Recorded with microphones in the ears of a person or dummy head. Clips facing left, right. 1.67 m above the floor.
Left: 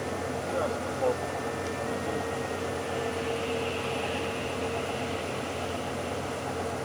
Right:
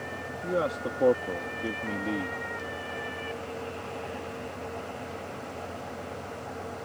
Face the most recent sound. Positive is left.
turn(degrees=-45)  # may be behind; listen again after turning